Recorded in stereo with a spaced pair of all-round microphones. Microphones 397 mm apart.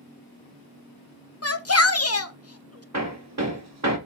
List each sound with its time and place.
1.4 s a shout: 35° left (ahead or behind), 0.7 m
2.9 s hammering: 40° right (ahead or behind), 1.4 m